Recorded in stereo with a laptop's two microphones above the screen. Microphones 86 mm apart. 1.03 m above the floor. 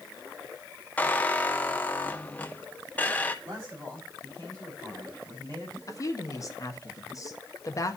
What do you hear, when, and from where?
1.0 s a squeak: 20° left (ahead or behind), 0.5 m
3.5 s a man speaking: 45° right (ahead or behind), 5 m
5.9 s a woman speaking: 40° left (ahead or behind), 1.0 m